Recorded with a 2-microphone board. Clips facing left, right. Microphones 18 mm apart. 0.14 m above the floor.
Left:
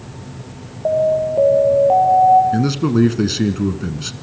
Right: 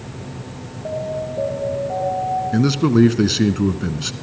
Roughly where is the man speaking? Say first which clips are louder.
Right 1 dB; centre.